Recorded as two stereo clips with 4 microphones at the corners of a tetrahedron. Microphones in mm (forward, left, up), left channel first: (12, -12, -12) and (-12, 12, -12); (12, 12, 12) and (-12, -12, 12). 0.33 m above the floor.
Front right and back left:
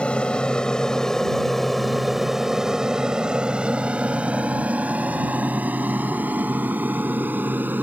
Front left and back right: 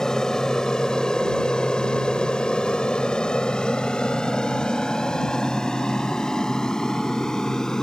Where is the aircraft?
15° right; by 7.8 s 115° left.